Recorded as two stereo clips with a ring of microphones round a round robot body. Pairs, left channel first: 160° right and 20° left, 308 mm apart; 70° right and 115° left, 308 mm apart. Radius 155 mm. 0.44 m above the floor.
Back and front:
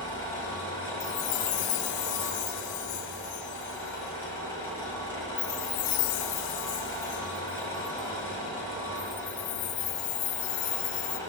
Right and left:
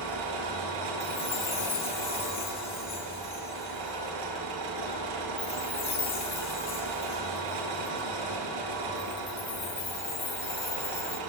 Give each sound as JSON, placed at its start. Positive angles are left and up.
{"t": 0.0, "sound": "an engine running", "azimuth_deg": 120, "distance_m": 5.5}
{"t": 1.0, "sound": "a chime", "azimuth_deg": -140, "distance_m": 0.5}